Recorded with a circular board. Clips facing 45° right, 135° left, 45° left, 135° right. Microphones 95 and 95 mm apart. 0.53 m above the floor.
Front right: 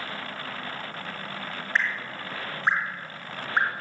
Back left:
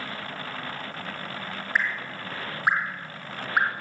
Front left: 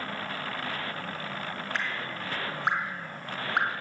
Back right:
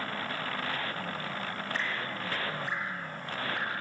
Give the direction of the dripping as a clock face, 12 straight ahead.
10 o'clock.